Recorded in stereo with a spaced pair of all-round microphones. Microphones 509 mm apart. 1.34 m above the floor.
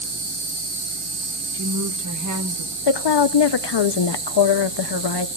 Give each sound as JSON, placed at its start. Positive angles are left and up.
{"t": 0.0, "sound": "an insect", "side_deg": -60, "distance_m": 0.8}
{"t": 1.5, "sound": "a woman speaking", "side_deg": -35, "distance_m": 0.9}
{"t": 2.9, "sound": "a woman speaking", "side_deg": 55, "distance_m": 0.5}